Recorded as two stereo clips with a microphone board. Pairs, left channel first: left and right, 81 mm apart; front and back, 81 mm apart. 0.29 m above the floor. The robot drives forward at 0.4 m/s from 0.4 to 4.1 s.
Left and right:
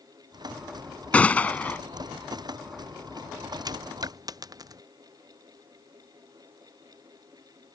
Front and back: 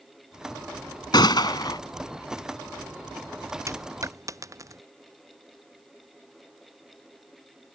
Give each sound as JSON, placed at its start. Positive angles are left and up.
{"t": 1.1, "sound": "a gunshot", "azimuth_deg": 15}
{"t": 3.7, "sound": "a dropped coin", "azimuth_deg": -130}